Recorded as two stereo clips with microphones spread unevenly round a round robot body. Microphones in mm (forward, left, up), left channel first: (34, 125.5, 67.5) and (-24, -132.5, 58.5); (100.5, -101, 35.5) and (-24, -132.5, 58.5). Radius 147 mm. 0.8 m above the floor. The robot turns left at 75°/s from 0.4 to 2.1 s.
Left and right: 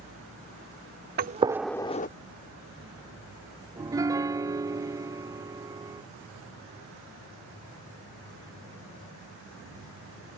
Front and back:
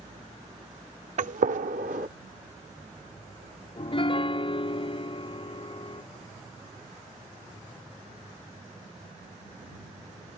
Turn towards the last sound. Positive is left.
turn(degrees=-25)